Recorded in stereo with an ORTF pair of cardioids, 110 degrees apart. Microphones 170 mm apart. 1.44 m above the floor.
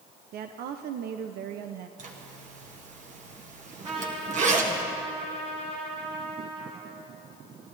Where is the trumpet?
35° right, 3 m.